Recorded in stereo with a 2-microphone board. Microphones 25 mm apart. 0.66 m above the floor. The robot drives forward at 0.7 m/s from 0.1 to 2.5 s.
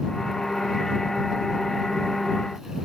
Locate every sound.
Only background noise.